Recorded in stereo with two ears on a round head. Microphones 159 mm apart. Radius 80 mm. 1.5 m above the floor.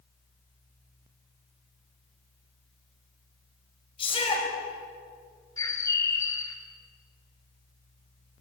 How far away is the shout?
About 7 m.